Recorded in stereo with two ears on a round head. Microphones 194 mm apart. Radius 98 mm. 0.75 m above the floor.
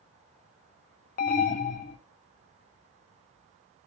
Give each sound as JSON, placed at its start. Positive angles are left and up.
{"t": 1.2, "sound": "an alarm", "side_deg": 40, "distance_m": 0.5}